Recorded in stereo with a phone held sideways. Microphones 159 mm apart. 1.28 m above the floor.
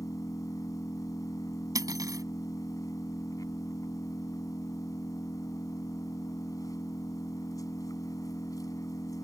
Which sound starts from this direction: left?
An engine running, at 0.0 s.